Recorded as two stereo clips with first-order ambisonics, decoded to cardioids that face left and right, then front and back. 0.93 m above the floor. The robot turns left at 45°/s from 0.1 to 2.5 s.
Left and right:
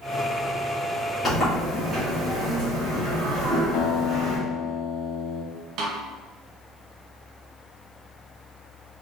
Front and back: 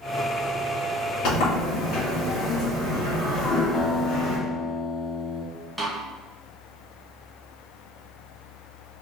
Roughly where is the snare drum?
Right.